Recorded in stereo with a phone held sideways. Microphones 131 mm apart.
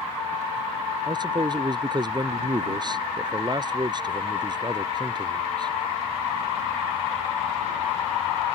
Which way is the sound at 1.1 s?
35° right (ahead or behind).